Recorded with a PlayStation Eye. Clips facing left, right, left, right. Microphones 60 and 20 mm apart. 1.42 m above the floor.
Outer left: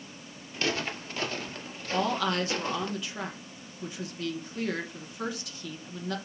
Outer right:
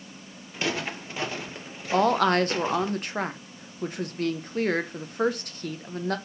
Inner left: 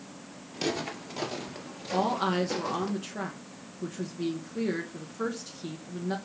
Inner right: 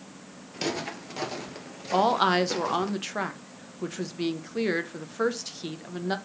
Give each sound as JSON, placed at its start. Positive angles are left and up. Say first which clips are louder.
{"t": 0.5, "sound": "footsteps", "louder": "outer right 1 dB, inner right 1 dB", "side_deg": -15, "distance_m": 1.5}
{"t": 1.9, "sound": "a woman speaking", "louder": "outer right 7 dB, inner right 5 dB", "side_deg": -50, "distance_m": 0.9}